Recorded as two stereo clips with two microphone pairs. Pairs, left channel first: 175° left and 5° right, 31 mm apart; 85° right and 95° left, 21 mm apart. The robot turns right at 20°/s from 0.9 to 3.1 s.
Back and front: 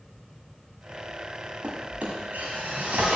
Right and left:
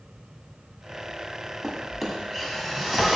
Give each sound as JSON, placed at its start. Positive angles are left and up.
{"t": 1.6, "sound": "a drawer", "azimuth_deg": 5, "distance_m": 1.6}